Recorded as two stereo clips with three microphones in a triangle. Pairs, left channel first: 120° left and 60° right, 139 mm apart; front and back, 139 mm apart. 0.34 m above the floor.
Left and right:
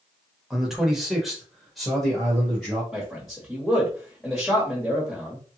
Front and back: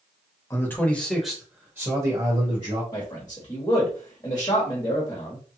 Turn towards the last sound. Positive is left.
turn(degrees=25)